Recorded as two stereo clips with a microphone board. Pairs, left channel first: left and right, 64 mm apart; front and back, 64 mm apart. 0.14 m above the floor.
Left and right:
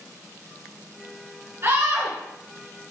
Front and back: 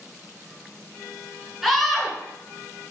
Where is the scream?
95° right, 1.5 m.